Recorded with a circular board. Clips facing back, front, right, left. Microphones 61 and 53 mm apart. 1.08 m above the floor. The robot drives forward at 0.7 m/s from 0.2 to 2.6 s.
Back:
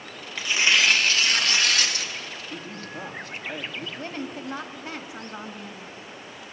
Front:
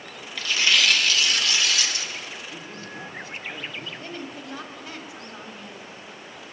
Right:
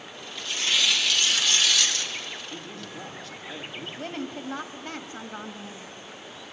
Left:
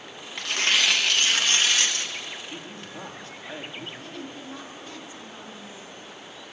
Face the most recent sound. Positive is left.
turn(degrees=-135)